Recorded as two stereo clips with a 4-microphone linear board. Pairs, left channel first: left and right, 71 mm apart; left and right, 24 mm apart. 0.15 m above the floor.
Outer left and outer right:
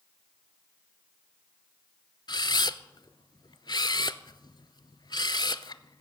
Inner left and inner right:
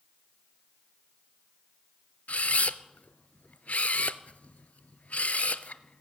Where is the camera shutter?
65° left (ahead or behind), 0.5 m.